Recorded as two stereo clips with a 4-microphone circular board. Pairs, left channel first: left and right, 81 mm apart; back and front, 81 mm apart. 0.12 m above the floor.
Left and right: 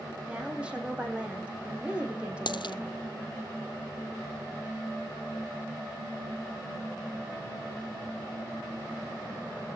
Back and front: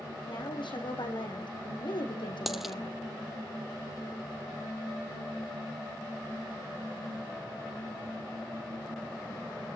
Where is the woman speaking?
165° right, 4.5 m.